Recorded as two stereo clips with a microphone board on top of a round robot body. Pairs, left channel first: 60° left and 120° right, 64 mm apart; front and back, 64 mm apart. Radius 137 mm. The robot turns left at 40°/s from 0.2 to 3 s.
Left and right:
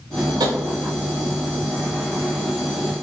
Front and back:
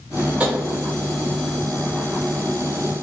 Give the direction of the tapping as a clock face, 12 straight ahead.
4 o'clock.